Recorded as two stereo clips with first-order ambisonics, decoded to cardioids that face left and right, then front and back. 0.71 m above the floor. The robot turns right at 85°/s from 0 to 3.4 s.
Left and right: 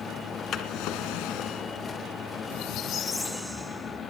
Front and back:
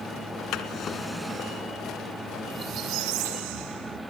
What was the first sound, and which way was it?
A drawer, 35° left.